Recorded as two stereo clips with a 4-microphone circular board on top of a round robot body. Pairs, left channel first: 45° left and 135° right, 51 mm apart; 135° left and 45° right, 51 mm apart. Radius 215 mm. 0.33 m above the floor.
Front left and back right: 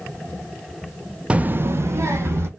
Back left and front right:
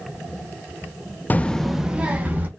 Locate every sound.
1.3 s a child speaking: 165° left, 0.6 m; by 2.5 s 105° right, 1.1 m